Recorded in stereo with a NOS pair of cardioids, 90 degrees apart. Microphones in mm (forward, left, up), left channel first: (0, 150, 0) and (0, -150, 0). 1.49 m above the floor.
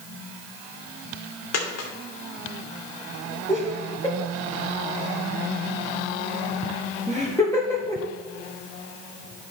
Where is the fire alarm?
No fire alarm in this recording.